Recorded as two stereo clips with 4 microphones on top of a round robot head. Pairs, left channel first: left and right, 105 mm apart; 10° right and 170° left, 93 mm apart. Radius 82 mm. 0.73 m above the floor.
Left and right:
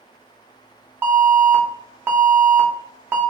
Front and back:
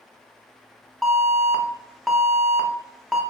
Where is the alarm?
90° right, 0.8 m.